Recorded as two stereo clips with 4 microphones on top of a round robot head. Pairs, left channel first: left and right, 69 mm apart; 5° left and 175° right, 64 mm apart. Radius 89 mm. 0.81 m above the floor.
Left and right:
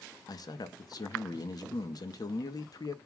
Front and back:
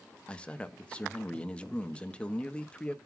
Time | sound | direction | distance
0.3 | a man speaking | 80° left | 1.2 m